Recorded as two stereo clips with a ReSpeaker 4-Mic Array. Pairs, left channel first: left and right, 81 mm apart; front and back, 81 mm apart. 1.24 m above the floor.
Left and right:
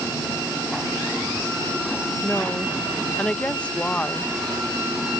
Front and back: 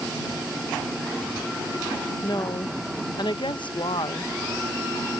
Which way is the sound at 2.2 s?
15° left.